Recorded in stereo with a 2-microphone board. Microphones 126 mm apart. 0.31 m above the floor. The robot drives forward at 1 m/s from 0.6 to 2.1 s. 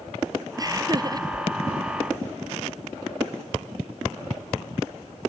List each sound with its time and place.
0.6 s laughter: 30° right (ahead or behind); by 1.3 s 35° right (ahead or behind)